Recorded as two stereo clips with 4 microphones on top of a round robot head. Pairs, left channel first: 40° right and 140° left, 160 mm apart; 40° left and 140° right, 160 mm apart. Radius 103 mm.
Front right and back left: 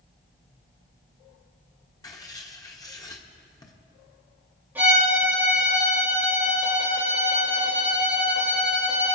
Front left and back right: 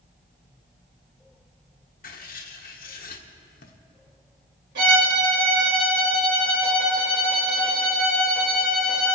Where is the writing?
25° left, 1.4 m.